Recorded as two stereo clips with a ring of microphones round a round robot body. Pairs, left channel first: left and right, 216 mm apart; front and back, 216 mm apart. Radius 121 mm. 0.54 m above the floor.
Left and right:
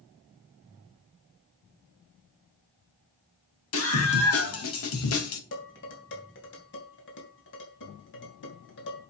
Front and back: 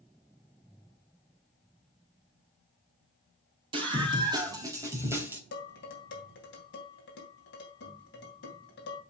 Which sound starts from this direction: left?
A scream, at 3.7 s.